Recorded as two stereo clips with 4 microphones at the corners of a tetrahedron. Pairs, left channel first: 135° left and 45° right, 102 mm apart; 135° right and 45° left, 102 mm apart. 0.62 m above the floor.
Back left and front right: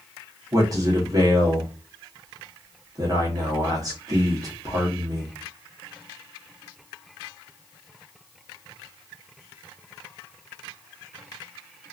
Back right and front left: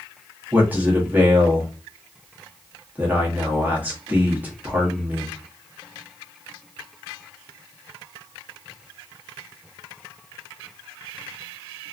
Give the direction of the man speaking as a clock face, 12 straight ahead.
1 o'clock.